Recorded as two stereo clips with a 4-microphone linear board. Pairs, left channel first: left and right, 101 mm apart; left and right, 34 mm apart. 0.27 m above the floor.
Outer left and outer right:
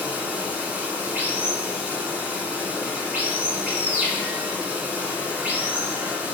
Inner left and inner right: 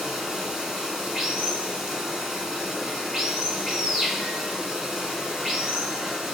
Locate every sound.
0.0 s running water: 15° right (ahead or behind), 0.9 m